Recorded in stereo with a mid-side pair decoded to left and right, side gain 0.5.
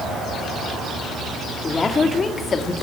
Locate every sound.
1.6 s a woman speaking: 30° left, 3 m; by 2.7 s 45° left, 2.5 m